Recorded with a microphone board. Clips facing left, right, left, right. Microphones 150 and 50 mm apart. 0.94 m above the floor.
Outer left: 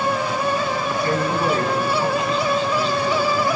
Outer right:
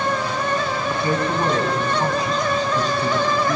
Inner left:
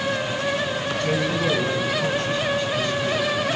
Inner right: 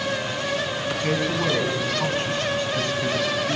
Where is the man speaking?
25° right (ahead or behind), 8 m; by 3.6 s 55° right (ahead or behind), 6.5 m.